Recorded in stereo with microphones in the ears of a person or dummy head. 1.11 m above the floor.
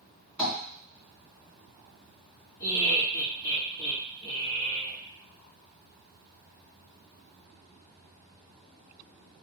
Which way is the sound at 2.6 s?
10° left (ahead or behind).